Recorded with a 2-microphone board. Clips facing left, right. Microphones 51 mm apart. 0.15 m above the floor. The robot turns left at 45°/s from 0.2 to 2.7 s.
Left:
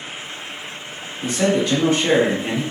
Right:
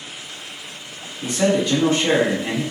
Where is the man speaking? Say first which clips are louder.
Even; 175° right, 1.3 m; by 2.6 s 120° left, 1.3 m.